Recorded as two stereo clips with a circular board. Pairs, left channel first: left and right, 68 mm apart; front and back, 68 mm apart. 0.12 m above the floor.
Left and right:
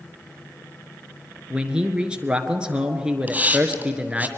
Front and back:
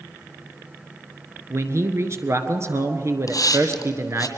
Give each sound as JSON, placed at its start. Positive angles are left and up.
{"t": 1.5, "sound": "a man speaking", "azimuth_deg": -160, "distance_m": 1.4}
{"t": 3.3, "sound": "a hiss", "azimuth_deg": -20, "distance_m": 1.7}